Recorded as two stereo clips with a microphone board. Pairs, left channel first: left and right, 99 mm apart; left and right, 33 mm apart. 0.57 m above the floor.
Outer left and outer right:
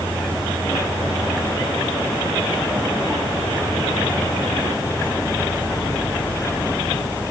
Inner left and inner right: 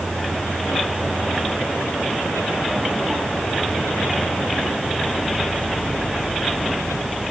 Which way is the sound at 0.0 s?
55° left (ahead or behind).